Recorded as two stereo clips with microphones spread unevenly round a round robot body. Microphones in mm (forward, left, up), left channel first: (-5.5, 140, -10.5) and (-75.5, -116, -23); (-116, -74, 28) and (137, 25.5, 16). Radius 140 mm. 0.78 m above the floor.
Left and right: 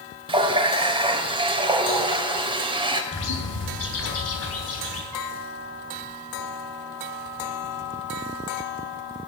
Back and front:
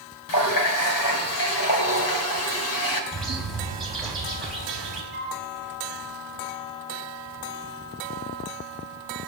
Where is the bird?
110° left, 3.5 m.